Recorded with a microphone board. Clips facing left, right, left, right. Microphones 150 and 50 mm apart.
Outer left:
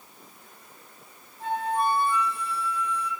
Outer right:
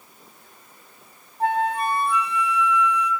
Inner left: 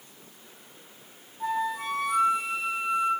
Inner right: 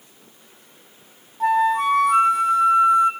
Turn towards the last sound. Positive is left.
turn(degrees=-70)  # may be behind; listen again after turning